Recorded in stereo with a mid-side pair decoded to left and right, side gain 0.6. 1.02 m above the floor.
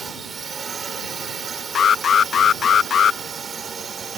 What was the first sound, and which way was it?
A drone, 35° right.